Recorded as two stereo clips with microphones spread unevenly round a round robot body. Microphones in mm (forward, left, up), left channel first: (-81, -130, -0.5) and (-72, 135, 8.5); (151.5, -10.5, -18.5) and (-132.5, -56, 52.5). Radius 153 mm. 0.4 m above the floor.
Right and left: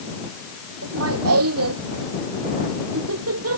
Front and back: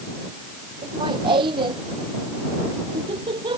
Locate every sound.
0.8 s laughter: 115° left